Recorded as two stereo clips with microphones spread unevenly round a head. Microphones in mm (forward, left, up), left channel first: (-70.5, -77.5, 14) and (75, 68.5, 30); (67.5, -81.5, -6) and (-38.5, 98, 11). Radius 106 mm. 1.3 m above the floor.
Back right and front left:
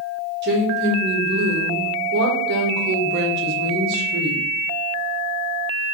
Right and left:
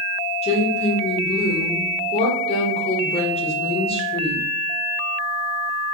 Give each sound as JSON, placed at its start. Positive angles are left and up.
{"t": 0.4, "sound": "a woman speaking", "azimuth_deg": 5, "distance_m": 1.1}